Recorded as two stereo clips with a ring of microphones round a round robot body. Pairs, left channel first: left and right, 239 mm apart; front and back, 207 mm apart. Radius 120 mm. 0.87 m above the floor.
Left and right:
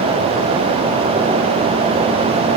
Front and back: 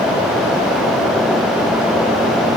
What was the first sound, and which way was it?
Only background noise.